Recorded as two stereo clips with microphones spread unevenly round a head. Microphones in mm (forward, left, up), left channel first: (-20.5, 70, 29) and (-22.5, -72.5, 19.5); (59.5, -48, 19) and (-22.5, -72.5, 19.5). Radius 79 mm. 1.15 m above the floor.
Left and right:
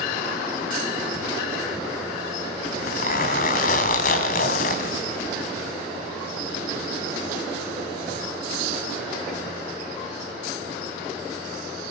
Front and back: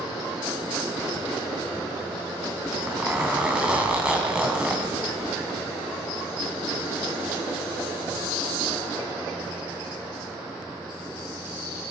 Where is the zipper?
110° left, 2.5 m.